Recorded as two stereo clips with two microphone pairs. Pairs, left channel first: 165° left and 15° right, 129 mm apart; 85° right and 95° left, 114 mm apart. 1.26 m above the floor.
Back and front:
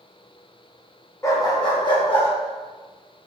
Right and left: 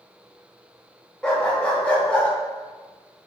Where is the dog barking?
160° right, 0.7 m.